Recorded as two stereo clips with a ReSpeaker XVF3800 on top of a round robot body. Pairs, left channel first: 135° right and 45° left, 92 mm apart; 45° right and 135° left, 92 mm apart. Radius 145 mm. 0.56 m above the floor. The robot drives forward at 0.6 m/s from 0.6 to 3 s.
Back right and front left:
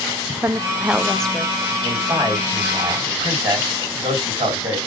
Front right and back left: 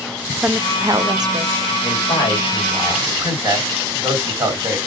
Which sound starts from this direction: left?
A woman speaking, at 0.4 s.